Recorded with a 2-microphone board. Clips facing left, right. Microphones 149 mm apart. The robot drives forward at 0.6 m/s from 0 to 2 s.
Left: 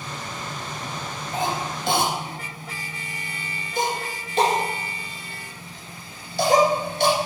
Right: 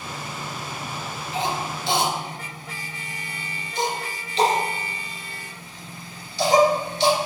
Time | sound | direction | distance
1.3 | a cough | 50° left (ahead or behind) | 2 m